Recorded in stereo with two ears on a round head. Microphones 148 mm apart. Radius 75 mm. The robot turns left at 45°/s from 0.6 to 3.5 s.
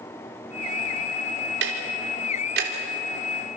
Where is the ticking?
70° right (ahead or behind), 3.5 m; by 2.7 s 60° right (ahead or behind), 3.5 m.